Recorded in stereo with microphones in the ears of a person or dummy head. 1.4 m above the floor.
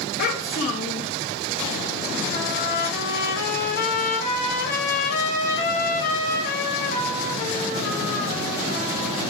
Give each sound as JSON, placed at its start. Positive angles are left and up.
{"t": 0.2, "sound": "a child speaking", "side_deg": 50, "distance_m": 1.2}
{"t": 2.3, "sound": "a trumpet", "side_deg": 60, "distance_m": 3.5}